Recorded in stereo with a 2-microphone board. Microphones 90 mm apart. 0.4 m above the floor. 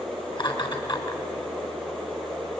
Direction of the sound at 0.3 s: 65° left (ahead or behind).